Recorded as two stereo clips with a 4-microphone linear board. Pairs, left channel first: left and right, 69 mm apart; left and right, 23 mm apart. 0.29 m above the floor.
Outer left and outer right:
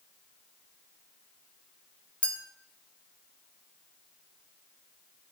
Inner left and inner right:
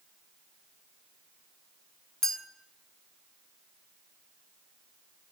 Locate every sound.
2.2 s a clink: 15° left (ahead or behind), 1.7 m